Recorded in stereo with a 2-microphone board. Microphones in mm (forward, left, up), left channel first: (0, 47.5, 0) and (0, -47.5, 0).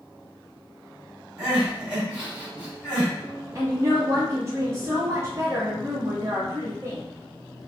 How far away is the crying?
About 1.7 m.